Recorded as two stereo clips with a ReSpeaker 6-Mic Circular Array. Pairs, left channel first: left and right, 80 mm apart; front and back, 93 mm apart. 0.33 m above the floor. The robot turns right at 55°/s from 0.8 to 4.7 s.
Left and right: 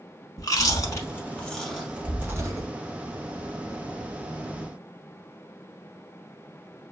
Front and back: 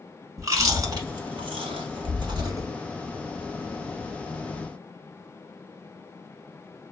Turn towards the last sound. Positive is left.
turn(degrees=-15)